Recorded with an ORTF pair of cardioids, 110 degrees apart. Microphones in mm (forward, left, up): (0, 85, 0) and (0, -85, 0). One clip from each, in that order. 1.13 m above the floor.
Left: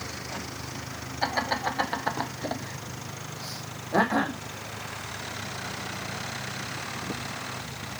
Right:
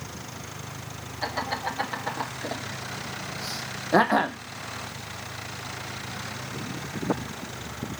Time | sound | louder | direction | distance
1.2 | laughter | left 2 dB | 25° left | 2.0 m